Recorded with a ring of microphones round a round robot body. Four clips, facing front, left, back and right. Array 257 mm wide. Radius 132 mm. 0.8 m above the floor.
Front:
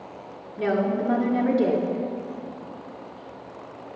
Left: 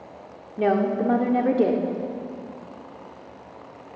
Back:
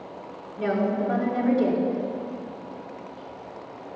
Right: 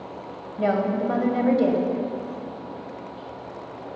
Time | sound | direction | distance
0.6 | a woman speaking | 80° left | 2 m